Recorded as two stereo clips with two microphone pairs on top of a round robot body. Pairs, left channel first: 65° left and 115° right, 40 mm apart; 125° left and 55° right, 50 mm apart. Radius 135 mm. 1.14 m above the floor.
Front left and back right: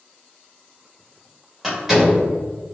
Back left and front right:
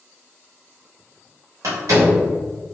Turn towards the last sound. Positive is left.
turn(degrees=-35)